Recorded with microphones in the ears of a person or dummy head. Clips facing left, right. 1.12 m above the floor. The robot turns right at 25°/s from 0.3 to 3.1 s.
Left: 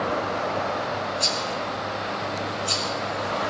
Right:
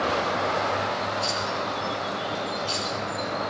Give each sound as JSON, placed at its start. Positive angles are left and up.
{"t": 1.2, "sound": "a rattle", "side_deg": 60, "distance_m": 4.0}